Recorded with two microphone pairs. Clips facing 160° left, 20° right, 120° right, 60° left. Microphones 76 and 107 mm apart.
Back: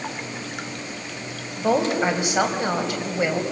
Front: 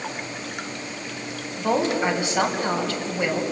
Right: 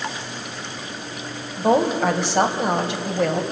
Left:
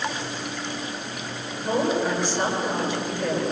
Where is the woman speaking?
130° right, 3.5 m.